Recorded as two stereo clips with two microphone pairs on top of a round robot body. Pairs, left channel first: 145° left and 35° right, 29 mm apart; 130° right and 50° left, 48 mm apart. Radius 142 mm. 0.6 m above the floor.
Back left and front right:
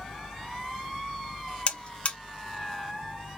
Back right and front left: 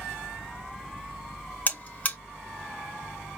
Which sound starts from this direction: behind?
A buzzer, at 1.7 s.